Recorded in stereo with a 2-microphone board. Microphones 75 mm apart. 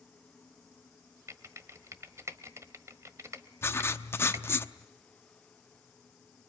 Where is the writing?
35° left (ahead or behind), 0.7 m.